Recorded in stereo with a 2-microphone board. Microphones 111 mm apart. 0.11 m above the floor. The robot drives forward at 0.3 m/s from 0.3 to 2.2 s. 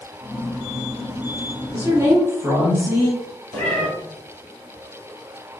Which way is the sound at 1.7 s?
25° right (ahead or behind).